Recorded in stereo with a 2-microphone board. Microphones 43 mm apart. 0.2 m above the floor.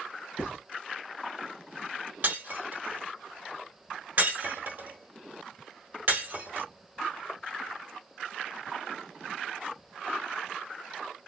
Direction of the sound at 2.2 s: 50° right (ahead or behind).